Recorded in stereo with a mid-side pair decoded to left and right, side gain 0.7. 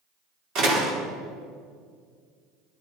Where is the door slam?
50° right, 4 m.